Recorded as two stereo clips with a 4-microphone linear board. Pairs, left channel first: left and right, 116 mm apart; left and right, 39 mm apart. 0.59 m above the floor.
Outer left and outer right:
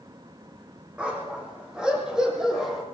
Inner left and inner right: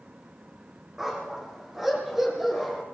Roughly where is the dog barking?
Centre.